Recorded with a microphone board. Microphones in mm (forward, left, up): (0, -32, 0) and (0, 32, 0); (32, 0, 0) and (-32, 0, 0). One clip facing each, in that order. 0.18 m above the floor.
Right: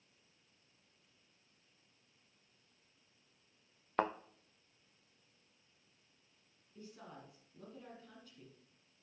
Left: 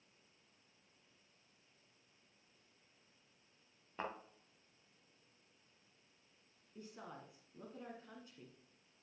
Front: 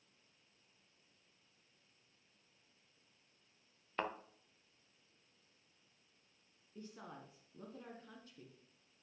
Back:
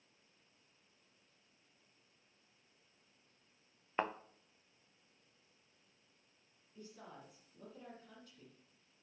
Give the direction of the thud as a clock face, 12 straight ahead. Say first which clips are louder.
Right 10 dB, back 3 dB; 4 o'clock.